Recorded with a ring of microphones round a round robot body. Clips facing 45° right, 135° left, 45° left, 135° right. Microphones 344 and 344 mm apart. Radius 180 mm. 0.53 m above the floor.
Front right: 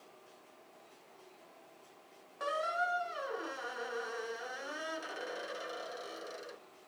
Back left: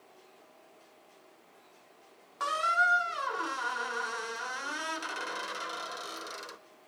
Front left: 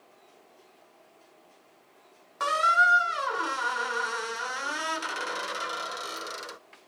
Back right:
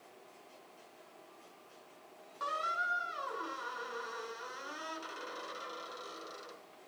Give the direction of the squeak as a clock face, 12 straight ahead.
10 o'clock.